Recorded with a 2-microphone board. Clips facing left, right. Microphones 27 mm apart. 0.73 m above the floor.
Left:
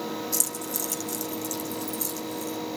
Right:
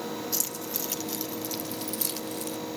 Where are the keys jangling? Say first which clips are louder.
Left 2 dB; 25° right (ahead or behind), 3.5 m; by 2.6 s 65° right (ahead or behind), 2.5 m.